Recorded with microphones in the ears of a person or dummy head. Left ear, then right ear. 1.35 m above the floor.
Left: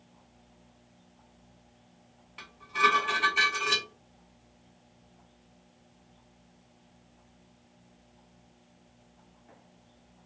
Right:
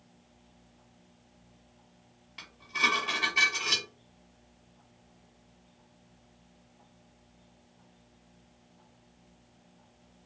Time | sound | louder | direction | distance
2.4 | dishes clattering | left 2 dB | centre (ahead or behind) | 1.6 m